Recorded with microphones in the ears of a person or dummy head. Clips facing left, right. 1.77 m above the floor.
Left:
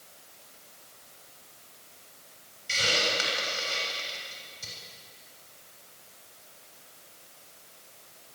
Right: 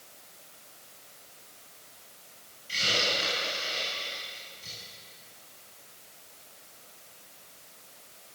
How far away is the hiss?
About 8 m.